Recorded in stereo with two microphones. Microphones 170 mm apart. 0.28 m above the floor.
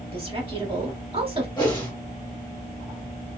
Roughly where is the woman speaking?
Right.